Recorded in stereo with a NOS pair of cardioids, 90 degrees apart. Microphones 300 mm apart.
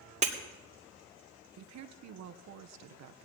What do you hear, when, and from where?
0.2 s breaking glass: 25° right, 2.5 m
1.6 s a woman speaking: 65° right, 1.1 m